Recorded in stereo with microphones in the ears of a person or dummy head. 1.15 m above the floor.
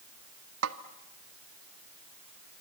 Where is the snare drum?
75° right (ahead or behind), 1.2 m.